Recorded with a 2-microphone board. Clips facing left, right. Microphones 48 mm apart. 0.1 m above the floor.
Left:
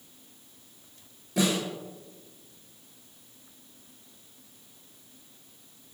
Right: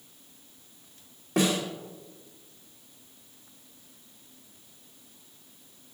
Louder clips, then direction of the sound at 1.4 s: Right 1 dB; 70° right (ahead or behind).